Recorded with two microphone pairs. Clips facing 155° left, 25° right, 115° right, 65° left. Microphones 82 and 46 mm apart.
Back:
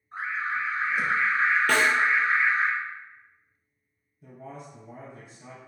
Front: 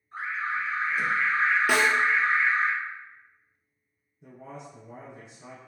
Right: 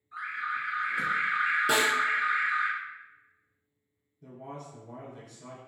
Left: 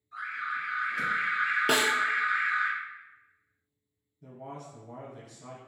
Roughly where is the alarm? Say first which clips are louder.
Back 1 dB, right 1 dB; behind.